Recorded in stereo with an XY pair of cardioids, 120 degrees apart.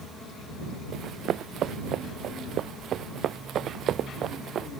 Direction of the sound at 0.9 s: 55° right.